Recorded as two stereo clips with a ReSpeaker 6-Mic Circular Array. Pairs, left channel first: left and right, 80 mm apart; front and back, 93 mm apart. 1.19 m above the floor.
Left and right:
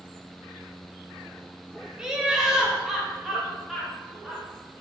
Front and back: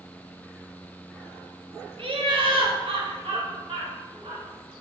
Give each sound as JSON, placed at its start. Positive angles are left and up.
{"t": 2.0, "sound": "laughter", "azimuth_deg": -170, "distance_m": 1.5}